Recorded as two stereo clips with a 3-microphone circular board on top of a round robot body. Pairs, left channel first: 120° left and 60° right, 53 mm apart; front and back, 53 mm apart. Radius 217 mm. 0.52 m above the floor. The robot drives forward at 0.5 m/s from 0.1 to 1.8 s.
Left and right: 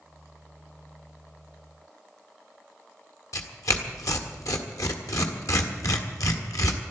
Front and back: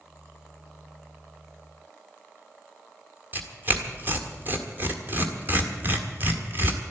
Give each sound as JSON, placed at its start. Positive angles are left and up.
{"t": 3.3, "sound": "tearing paper", "azimuth_deg": 130, "distance_m": 1.8}